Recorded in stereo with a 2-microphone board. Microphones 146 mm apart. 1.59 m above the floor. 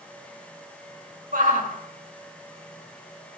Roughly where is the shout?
Right.